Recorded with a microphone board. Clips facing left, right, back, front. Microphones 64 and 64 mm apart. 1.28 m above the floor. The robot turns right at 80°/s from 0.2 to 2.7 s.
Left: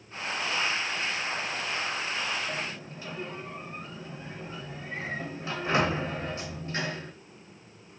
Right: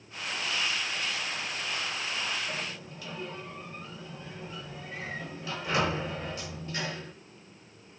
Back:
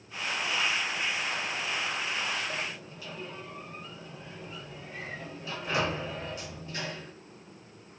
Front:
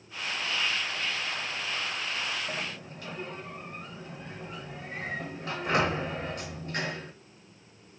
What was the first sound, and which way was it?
A sliding door, 20° left.